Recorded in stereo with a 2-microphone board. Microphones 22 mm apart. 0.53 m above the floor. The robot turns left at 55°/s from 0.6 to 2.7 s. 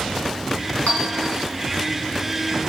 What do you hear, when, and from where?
0.9 s a clink: 80° left, 3 m; by 1.3 s 60° left (ahead or behind), 3 m